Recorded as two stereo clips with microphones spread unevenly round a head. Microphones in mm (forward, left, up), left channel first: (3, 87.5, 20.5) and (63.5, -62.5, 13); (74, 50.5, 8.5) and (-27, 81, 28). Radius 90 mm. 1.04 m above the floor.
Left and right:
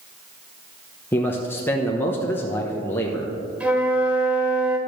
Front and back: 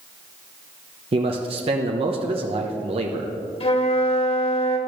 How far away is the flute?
About 1.8 m.